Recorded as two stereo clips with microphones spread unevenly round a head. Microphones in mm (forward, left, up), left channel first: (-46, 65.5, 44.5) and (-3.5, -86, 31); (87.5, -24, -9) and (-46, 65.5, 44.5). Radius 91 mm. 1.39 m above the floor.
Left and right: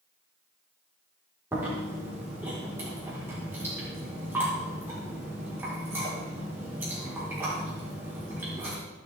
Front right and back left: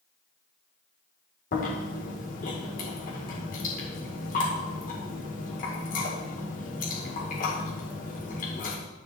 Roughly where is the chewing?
Ahead.